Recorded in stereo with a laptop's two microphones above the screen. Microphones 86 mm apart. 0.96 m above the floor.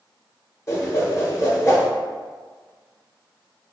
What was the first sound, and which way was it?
A whoosh, 35° left (ahead or behind).